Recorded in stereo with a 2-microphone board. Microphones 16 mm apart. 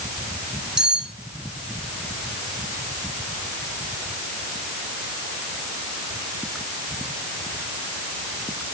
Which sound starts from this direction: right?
Cutlery clinking, at 0.8 s.